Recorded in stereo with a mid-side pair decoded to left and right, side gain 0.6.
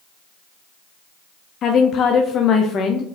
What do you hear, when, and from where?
1.6 s a woman speaking: 40° left, 0.5 m